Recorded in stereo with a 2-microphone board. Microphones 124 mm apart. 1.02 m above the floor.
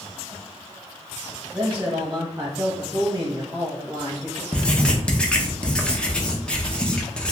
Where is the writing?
10° left (ahead or behind), 0.6 m.